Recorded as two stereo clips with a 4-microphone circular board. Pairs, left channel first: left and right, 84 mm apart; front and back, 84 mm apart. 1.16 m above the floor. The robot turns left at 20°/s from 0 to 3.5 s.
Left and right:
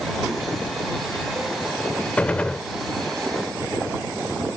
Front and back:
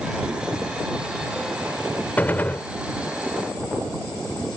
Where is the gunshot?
40° left; by 2.6 s 30° left.